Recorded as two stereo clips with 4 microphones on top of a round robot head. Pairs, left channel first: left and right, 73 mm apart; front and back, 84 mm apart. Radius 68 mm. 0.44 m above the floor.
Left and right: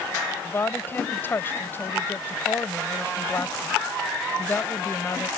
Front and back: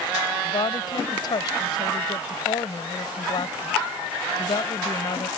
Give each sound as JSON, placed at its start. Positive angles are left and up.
{"t": 0.4, "sound": "a woman speaking", "azimuth_deg": 35}